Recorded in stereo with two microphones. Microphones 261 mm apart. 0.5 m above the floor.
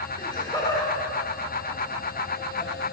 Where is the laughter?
20° left (ahead or behind), 1.5 m; by 2.7 s 10° left (ahead or behind), 2.5 m.